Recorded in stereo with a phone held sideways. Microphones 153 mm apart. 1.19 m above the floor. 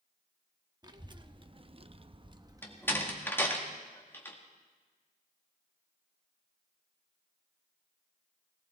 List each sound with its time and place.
0.8 s a child speaking: 25° right (ahead or behind), 1.1 m; by 3.2 s 10° right (ahead or behind), 1.0 m
2.6 s a door slam: 15° left (ahead or behind), 1.8 m